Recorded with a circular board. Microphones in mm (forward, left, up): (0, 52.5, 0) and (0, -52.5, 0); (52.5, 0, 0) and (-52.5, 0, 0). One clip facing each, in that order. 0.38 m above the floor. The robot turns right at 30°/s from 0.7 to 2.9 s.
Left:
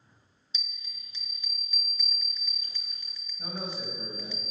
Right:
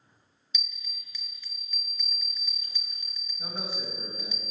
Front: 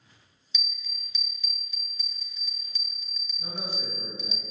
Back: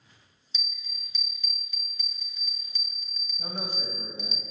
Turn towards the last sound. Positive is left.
turn(degrees=-175)